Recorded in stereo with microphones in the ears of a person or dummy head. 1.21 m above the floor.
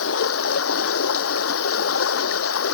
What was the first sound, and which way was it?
Running water, 80° left.